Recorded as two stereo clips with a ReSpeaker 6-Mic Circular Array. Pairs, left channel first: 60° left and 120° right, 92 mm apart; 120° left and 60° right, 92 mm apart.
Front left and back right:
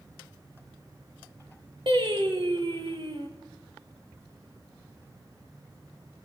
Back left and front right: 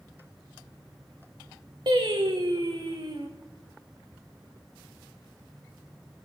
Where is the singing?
95° right, 2.5 m.